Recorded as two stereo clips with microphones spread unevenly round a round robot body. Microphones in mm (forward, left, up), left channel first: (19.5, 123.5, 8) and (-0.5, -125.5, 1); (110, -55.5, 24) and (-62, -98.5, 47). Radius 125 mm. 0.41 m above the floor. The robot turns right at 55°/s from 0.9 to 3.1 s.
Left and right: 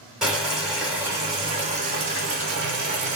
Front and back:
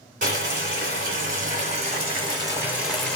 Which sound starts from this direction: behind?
Boiling, at 0.2 s.